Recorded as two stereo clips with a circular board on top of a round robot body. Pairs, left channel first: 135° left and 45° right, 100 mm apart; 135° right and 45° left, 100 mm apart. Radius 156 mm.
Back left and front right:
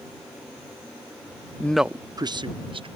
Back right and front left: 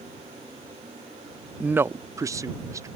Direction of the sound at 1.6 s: 110° left.